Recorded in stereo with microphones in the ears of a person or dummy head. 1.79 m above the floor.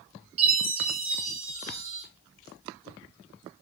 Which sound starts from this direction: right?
A chime, at 0.4 s.